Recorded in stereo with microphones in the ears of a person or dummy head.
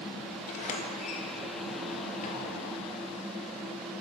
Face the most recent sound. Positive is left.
turn(degrees=40)  # may be behind; listen again after turning